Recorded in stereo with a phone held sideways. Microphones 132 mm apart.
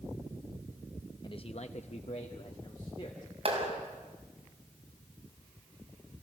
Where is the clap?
50° right (ahead or behind), 5.5 m.